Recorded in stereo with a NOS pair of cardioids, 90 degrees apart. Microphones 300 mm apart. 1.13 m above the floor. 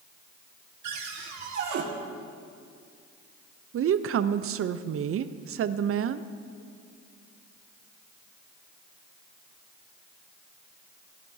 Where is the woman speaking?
50° right, 0.6 m.